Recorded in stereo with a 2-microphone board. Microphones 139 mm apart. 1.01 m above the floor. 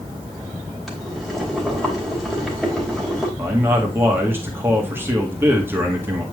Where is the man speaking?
15° right (ahead or behind), 2 m.